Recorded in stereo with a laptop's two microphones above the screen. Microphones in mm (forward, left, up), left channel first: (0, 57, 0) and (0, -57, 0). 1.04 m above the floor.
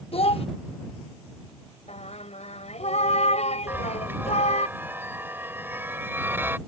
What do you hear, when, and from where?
0.1 s a child speaking: 60° left (ahead or behind)
1.9 s singing: 75° left (ahead or behind)
3.7 s a chime: 20° right (ahead or behind)